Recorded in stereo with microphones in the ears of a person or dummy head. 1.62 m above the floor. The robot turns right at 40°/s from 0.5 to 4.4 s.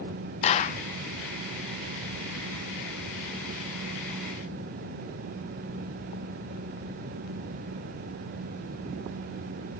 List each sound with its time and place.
0.4 s a clap: 40° left (ahead or behind), 0.8 m; by 0.8 s 50° left (ahead or behind), 0.8 m